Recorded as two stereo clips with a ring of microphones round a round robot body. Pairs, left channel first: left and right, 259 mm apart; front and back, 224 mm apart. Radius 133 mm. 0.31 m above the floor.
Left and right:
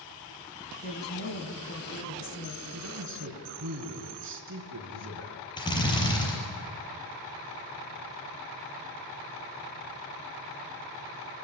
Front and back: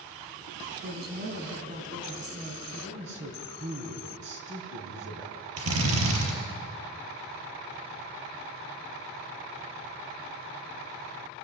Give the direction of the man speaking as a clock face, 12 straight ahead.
4 o'clock.